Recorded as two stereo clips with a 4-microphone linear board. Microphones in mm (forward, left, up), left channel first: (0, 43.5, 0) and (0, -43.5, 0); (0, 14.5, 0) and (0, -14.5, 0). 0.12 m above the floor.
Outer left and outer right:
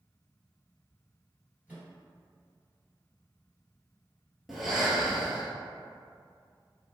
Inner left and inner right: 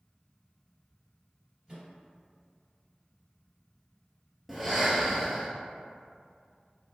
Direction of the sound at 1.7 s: 20° right (ahead or behind).